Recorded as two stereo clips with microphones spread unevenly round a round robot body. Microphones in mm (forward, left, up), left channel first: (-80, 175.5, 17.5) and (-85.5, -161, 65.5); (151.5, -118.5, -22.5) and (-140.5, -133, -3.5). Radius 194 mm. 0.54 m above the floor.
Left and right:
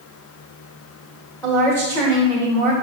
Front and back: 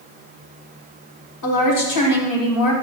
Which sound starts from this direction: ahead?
A woman speaking, at 1.4 s.